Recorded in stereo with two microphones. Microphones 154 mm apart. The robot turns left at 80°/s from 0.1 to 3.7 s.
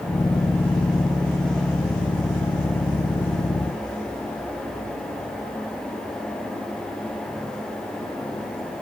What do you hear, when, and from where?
Only background noise.